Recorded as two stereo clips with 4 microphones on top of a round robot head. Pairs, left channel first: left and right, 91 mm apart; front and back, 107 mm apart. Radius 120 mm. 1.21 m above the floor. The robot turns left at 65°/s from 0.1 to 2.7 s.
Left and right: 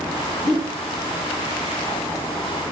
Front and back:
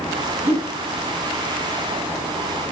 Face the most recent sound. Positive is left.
turn(degrees=70)